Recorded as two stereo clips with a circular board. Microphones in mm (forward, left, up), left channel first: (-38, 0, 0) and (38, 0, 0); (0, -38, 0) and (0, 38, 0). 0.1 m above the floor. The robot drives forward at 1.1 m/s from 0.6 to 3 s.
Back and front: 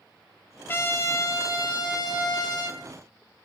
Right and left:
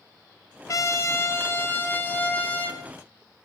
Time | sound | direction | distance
0.7 | a trumpet | 125° right | 1.6 m